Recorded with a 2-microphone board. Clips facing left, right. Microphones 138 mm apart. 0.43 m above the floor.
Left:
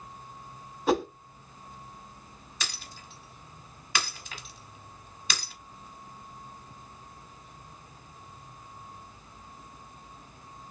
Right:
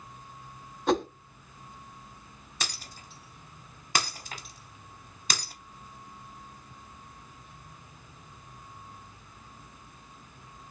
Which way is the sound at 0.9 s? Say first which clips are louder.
Even; 5° left (ahead or behind).